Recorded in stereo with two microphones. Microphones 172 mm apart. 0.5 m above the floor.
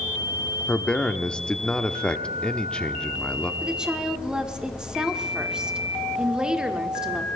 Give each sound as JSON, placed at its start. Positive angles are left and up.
{"t": 0.7, "sound": "a man speaking", "side_deg": 5, "distance_m": 0.9}
{"t": 3.6, "sound": "a woman speaking", "side_deg": -5, "distance_m": 1.3}